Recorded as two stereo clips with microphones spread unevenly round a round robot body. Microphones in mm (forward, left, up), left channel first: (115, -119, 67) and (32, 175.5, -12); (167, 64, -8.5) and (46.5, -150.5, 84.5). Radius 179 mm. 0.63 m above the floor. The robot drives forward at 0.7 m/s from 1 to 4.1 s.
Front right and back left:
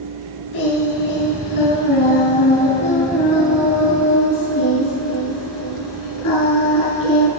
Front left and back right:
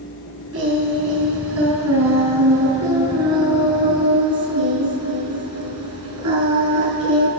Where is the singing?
95° right, 4.5 m; by 7.3 s 120° right, 5 m.